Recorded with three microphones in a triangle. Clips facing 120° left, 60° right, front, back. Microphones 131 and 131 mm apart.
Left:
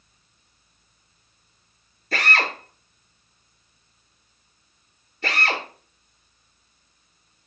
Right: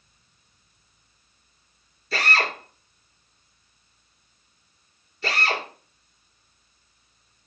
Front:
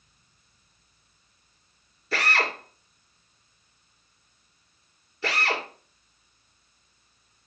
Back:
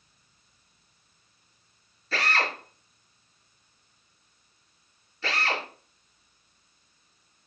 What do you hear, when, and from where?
2.1 s a drill: 80° left, 5 m